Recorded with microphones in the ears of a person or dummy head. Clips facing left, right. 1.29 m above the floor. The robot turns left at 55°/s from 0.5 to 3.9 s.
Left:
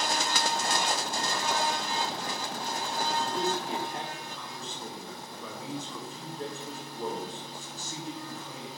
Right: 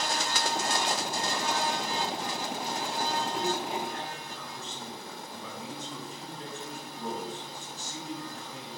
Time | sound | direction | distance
3.1 | a man speaking | 150° left | 4.5 m